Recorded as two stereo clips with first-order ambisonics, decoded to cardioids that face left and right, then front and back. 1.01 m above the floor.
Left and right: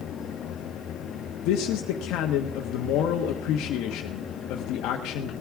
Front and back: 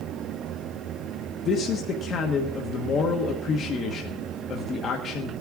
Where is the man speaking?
55° left, 1.2 m.